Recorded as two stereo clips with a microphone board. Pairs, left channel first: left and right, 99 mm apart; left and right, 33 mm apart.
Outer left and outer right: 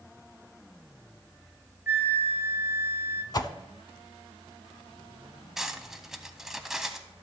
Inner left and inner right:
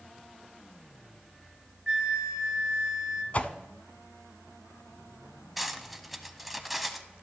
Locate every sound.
1.9 s a flute: 25° right (ahead or behind), 0.5 m
3.3 s a whoosh: 45° left (ahead or behind), 0.5 m
5.6 s cutlery clinking: 5° right (ahead or behind), 0.6 m